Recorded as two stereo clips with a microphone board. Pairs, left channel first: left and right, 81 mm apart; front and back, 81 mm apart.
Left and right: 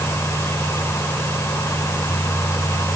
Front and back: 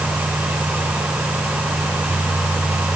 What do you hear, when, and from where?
Only background noise.